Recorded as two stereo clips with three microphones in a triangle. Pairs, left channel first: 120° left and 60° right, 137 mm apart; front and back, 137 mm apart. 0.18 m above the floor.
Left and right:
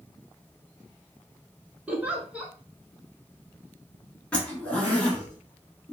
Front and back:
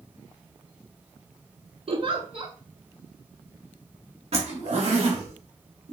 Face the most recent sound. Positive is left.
turn(degrees=-160)